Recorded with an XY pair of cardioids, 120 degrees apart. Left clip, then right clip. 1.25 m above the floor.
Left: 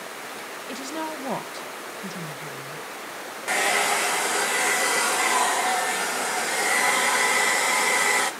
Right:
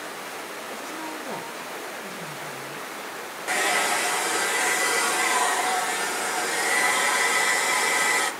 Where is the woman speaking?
65° left, 1.5 m.